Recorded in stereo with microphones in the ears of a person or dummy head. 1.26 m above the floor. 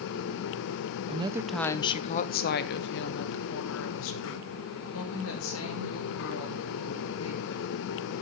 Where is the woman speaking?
30° right (ahead or behind), 0.5 m; by 7.7 s 80° left, 3.5 m.